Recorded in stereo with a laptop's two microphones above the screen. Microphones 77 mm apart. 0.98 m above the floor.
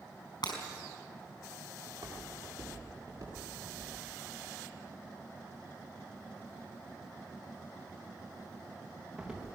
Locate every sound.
0.4 s breaking glass: 85° left, 5 m
1.9 s footsteps: 55° right (ahead or behind), 9 m; by 9.4 s 5° right (ahead or behind), 6 m